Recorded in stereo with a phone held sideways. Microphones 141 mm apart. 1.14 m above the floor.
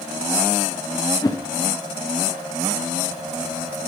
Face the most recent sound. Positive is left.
turn(degrees=25)  # may be behind; listen again after turning